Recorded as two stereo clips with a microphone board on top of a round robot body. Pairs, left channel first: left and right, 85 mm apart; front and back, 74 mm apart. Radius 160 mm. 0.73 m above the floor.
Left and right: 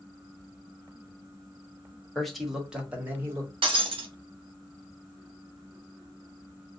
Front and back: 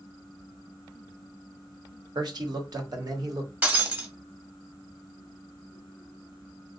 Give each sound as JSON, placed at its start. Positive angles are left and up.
{"t": 2.1, "sound": "a man speaking", "azimuth_deg": 175, "distance_m": 1.4}
{"t": 3.6, "sound": "breaking glass", "azimuth_deg": -110, "distance_m": 0.9}